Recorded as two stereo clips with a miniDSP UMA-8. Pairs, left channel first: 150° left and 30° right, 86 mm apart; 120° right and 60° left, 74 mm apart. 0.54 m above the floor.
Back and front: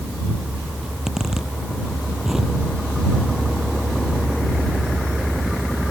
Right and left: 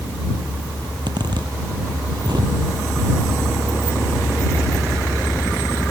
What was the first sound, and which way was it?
A zipper, 55° left.